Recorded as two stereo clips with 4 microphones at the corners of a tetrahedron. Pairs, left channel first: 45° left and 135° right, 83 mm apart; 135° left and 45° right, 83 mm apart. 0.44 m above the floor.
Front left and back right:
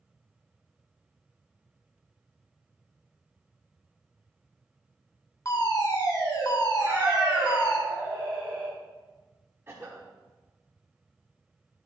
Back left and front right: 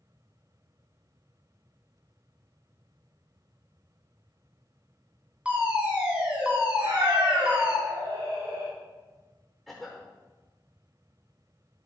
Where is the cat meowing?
60° right, 3 m.